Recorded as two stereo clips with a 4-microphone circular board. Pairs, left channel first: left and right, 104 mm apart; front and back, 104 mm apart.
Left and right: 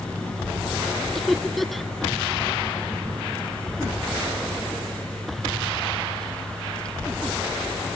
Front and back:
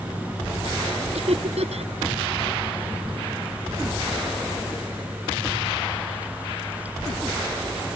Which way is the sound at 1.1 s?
Straight behind.